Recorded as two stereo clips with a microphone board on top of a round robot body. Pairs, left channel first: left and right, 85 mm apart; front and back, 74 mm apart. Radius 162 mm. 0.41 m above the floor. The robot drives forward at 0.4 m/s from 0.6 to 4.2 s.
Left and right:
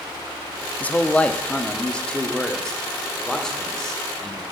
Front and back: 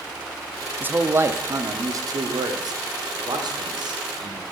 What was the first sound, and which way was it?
A man speaking, 145° left.